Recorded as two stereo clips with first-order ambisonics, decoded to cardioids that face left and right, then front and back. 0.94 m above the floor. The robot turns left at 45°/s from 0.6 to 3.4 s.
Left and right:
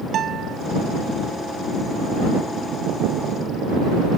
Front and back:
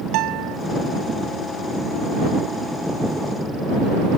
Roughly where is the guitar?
Behind right.